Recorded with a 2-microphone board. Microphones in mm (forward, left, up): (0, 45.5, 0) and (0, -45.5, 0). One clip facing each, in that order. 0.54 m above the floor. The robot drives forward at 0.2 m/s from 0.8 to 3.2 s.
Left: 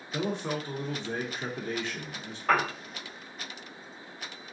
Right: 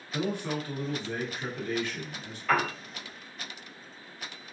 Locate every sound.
0.1 s a man speaking: 25° left (ahead or behind), 0.7 m
2.5 s a piano: 40° left (ahead or behind), 1.8 m